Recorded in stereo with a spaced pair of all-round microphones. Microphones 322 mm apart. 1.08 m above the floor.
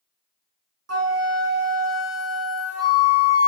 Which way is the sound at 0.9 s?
50° right (ahead or behind).